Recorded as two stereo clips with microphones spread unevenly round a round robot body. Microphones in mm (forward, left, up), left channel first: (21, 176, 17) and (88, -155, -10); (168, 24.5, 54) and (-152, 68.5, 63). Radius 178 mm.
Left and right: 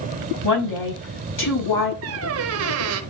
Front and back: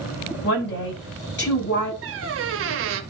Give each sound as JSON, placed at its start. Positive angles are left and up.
{"t": 0.4, "sound": "a woman speaking", "azimuth_deg": 45, "distance_m": 4.5}
{"t": 2.0, "sound": "a squeak", "azimuth_deg": -130, "distance_m": 0.7}